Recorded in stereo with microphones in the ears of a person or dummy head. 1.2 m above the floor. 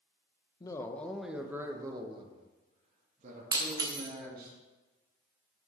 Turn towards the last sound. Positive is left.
turn(degrees=-25)  # may be behind; listen again after turning